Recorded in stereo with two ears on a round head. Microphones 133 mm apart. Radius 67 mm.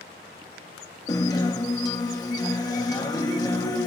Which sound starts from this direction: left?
A guitar, at 1.1 s.